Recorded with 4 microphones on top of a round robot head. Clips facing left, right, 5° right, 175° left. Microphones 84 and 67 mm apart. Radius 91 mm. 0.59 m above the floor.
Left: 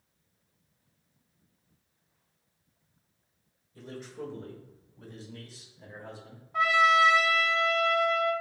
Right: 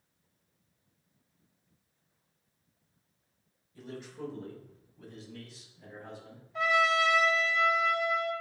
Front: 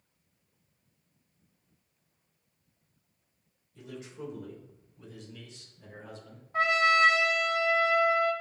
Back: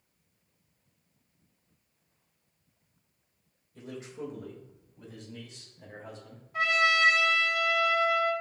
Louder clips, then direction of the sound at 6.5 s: Left 4 dB, front 2 dB; 45° left.